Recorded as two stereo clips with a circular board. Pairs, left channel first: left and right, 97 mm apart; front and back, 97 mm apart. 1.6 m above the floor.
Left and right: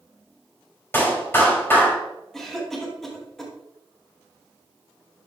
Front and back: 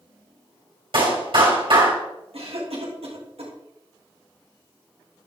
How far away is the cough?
About 3 m.